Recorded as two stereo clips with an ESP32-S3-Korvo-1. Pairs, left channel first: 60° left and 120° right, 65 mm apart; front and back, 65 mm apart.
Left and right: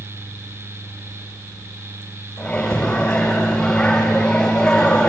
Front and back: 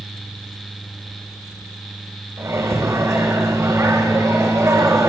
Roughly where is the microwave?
Behind left.